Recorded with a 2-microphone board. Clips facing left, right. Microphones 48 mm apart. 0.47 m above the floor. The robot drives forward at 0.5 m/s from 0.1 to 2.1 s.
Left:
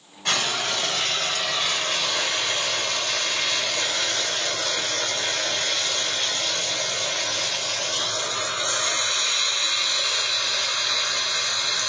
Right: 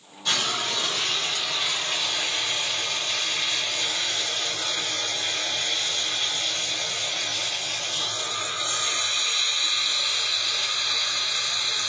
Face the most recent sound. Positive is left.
turn(degrees=55)  # may be behind; listen again after turning